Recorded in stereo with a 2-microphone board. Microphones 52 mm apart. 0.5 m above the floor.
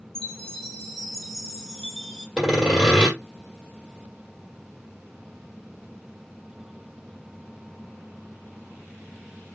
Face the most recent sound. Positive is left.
turn(degrees=-10)  # may be behind; listen again after turning